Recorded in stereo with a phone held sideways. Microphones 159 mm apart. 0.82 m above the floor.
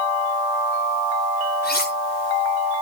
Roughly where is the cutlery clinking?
Left.